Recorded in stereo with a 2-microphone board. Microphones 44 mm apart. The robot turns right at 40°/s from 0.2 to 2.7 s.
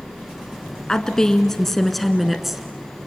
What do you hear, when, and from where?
0.9 s a woman speaking: 20° left (ahead or behind), 1.1 m; by 3.1 s 10° right (ahead or behind), 1.1 m